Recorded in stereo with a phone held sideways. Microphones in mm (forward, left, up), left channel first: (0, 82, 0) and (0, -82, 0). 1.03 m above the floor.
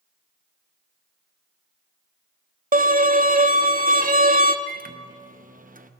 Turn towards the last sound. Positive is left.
turn(degrees=-55)  # may be behind; listen again after turning